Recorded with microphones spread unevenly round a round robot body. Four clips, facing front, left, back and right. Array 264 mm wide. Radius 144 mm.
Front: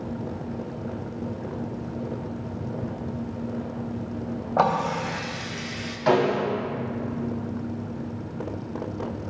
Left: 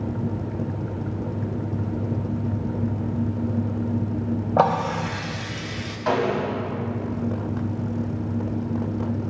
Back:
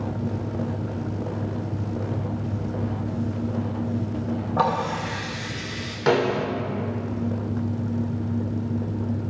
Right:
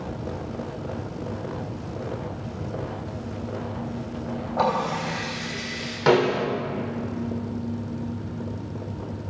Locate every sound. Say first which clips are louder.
4.6 s a running tap: left 3 dB, front 2 dB; 100° left, 3 m
6.1 s a snare drum: right 3 dB, even; 135° right, 3 m